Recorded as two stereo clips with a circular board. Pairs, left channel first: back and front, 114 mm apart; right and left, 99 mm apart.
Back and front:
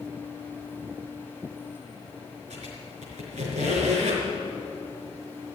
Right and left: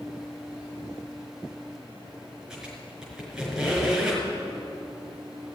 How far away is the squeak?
About 5 m.